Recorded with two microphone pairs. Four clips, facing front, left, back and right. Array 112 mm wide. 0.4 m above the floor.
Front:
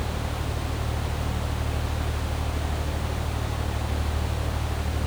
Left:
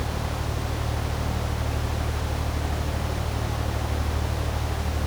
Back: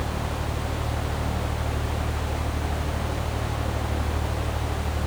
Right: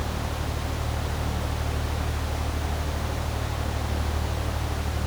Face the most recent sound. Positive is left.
No sound to turn to.